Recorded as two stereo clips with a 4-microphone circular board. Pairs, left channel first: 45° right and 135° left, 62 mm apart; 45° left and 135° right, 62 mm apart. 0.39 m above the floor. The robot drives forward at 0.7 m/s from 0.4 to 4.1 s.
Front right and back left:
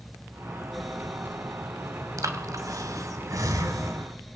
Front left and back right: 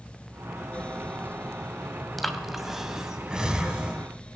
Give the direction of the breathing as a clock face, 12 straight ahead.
8 o'clock.